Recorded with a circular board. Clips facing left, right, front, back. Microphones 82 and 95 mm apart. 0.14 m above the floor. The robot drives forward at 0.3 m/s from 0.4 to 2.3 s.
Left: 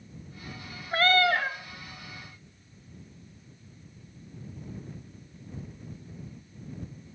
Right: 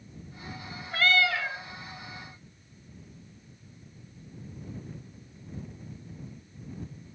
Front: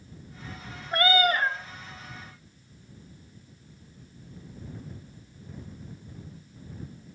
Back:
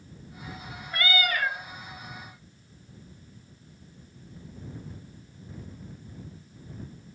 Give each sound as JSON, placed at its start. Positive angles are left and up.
{"t": 0.9, "sound": "a cat meowing", "azimuth_deg": 45, "distance_m": 0.7}